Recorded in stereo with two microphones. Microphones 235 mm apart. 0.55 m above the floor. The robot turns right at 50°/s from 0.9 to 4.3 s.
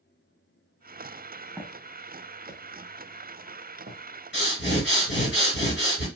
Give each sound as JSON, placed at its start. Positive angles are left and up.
{"t": 1.6, "sound": "footsteps", "side_deg": -10, "distance_m": 1.1}
{"t": 4.3, "sound": "breathing", "side_deg": 50, "distance_m": 1.9}